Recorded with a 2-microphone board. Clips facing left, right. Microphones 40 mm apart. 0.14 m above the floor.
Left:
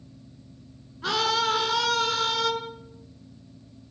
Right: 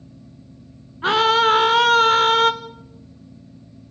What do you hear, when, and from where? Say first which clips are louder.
1.0 s a scream: right 9 dB; 35° right (ahead or behind), 1.4 m; by 2.5 s 45° right (ahead or behind), 1.5 m